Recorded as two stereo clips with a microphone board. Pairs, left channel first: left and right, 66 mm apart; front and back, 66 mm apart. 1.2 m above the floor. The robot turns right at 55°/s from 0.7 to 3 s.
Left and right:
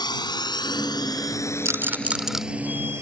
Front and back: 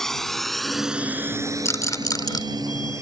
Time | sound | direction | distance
0.0 | a drone | 85° left | ?
1.6 | a rattle | 45° right | ?